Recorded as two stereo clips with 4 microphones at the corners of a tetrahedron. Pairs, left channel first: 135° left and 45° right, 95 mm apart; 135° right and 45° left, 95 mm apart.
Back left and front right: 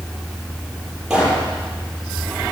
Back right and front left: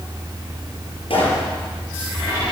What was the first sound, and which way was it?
A pop, 130° right.